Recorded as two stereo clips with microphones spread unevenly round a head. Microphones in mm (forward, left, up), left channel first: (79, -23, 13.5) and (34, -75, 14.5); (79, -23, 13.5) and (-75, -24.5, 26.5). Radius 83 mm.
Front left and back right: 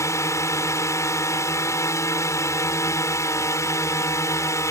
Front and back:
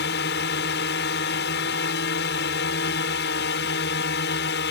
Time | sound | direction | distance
0.0 | a drone | 5° left | ?